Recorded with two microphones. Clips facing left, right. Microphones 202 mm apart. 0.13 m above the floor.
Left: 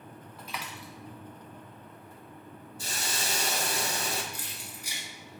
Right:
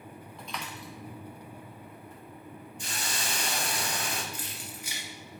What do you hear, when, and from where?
0.4 s a dropped coin: 5° left (ahead or behind), 0.8 m
2.8 s a hiss: 40° left (ahead or behind), 0.6 m
4.3 s keys jangling: 40° left (ahead or behind), 1.3 m